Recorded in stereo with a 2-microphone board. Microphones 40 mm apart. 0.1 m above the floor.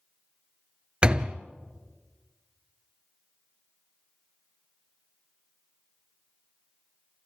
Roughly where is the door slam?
Right.